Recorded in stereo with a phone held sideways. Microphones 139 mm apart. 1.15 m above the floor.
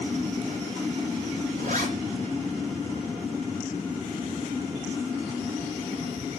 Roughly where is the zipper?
Right.